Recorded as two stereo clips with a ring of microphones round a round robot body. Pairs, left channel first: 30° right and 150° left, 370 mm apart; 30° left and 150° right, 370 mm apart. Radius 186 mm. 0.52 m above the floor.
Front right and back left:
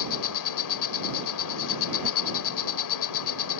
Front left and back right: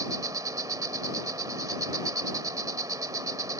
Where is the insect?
70° right.